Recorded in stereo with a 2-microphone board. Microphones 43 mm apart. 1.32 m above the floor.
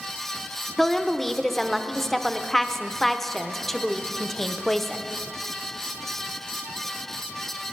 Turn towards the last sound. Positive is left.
turn(degrees=5)  # may be behind; listen again after turning